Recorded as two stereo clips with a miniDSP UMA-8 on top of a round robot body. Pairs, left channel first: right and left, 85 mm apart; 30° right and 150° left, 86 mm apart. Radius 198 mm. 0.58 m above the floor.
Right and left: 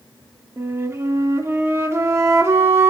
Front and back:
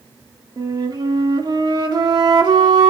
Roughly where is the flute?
Behind left.